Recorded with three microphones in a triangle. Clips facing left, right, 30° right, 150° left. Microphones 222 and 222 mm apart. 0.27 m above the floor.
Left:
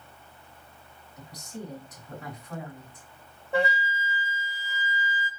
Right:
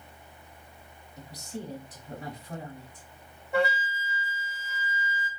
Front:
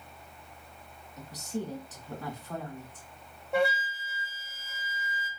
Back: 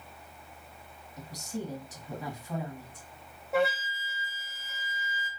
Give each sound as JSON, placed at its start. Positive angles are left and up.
{"t": 1.2, "sound": "a woman speaking", "azimuth_deg": -135, "distance_m": 1.4}
{"t": 3.5, "sound": "a flute", "azimuth_deg": 65, "distance_m": 1.0}